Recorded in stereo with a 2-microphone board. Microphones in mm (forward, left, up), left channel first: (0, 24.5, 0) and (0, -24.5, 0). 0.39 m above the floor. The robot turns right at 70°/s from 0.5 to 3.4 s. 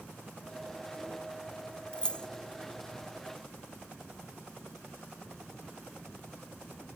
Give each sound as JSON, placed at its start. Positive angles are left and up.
{"t": 1.9, "sound": "keys jangling", "side_deg": 20}